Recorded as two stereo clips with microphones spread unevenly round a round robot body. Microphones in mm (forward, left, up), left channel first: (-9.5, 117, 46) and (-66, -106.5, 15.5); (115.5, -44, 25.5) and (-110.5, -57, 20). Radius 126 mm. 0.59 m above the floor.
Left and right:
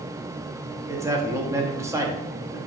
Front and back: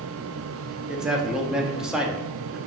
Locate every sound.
0.9 s a man speaking: 100° right, 0.7 m